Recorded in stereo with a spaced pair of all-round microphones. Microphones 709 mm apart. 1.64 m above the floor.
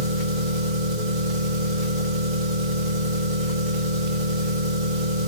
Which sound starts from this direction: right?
An engine running, at 0.0 s.